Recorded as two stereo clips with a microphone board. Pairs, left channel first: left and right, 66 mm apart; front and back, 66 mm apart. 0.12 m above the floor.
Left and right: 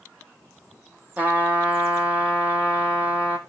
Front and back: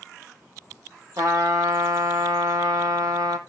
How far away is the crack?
No crack in this recording.